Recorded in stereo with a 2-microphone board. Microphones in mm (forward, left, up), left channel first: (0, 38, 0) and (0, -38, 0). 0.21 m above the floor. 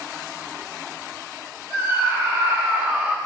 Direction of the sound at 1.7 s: 30° right (ahead or behind).